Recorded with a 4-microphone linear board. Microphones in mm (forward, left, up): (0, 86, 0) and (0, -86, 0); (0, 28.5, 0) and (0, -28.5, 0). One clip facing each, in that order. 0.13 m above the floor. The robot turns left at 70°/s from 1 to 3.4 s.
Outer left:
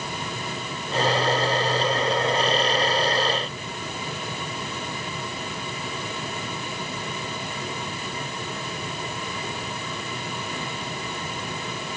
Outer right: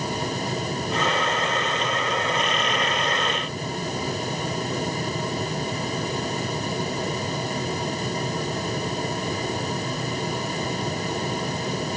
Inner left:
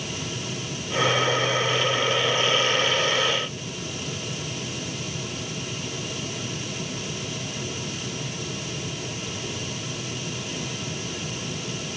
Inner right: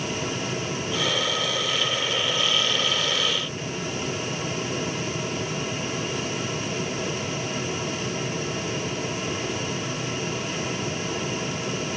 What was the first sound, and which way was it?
Only background noise.